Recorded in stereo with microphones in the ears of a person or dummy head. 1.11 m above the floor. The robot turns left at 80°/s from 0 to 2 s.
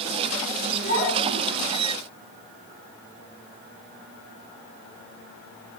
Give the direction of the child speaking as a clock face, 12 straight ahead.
2 o'clock.